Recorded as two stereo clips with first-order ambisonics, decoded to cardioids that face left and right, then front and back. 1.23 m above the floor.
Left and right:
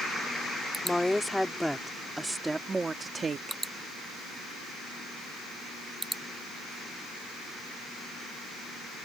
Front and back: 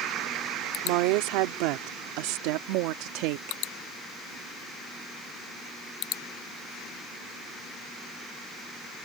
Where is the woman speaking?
175° left; by 3.6 s 155° right.